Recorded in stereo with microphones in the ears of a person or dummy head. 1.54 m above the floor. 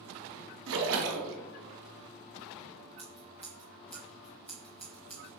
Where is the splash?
65° right (ahead or behind), 0.8 m.